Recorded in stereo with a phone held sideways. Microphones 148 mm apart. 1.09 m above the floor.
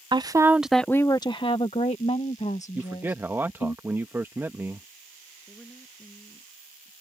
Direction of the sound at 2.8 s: 15° right (ahead or behind).